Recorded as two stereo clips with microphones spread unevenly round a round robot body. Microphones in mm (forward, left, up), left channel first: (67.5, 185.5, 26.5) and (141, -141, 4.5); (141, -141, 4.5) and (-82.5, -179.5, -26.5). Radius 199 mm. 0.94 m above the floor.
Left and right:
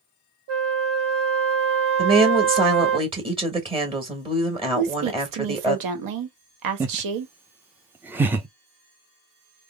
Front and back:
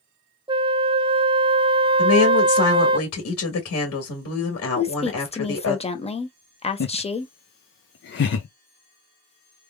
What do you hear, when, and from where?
0.5 s a flute: 100° right, 0.5 m
2.0 s a woman speaking: 5° right, 1.8 m
4.8 s a woman speaking: 60° right, 1.3 m
6.8 s laughter: straight ahead, 0.6 m